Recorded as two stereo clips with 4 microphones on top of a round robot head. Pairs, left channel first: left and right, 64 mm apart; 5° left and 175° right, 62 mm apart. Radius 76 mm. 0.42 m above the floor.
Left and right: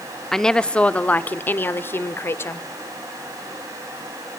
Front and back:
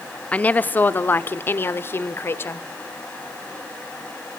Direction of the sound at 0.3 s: 15° left.